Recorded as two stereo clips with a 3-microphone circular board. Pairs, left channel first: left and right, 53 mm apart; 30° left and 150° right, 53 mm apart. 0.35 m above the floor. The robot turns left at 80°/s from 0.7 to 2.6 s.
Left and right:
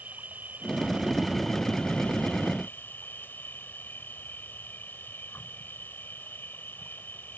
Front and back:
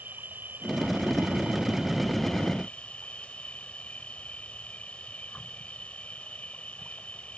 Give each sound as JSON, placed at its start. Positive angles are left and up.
{"t": 0.0, "sound": "an insect", "azimuth_deg": -125}